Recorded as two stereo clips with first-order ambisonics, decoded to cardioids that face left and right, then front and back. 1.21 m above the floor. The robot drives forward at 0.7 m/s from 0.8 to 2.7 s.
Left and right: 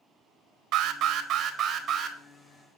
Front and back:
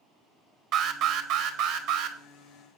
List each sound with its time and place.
0.7 s an alarm: 130° right, 1.2 m; by 2.2 s 155° right, 1.9 m